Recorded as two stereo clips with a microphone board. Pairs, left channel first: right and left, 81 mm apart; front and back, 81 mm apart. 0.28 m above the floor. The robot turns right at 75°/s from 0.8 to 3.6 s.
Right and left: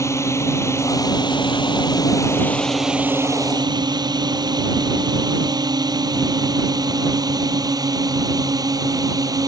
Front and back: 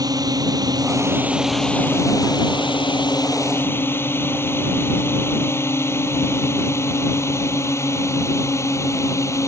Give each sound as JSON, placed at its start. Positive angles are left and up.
{"t": 0.0, "sound": "a drone", "azimuth_deg": -145}